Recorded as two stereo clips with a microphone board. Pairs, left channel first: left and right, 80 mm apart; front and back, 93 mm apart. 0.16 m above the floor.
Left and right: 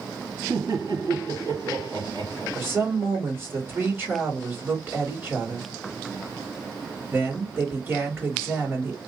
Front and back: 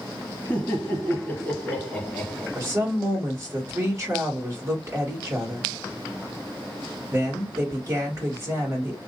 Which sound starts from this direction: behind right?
A woman speaking, at 2.5 s.